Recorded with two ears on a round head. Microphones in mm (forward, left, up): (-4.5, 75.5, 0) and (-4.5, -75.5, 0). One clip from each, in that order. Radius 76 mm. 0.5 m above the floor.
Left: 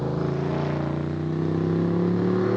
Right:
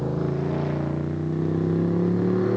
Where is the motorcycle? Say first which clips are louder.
Even; 20° left (ahead or behind).